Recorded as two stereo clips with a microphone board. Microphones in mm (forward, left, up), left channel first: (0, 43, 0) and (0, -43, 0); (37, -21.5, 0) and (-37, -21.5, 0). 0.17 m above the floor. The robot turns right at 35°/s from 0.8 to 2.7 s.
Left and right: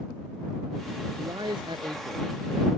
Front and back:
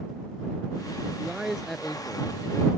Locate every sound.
1.2 s a man speaking: 105° right; by 2.7 s 55° right